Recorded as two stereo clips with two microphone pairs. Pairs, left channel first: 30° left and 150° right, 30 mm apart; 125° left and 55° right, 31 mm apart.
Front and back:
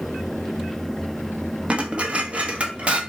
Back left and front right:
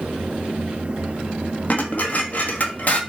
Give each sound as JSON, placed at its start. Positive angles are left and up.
{"t": 1.7, "sound": "dishes clattering", "azimuth_deg": 160, "distance_m": 0.8}